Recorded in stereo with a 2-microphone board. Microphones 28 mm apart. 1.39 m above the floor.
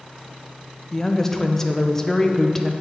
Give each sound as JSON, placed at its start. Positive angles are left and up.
{"t": 0.9, "sound": "a woman speaking", "side_deg": 15, "distance_m": 0.6}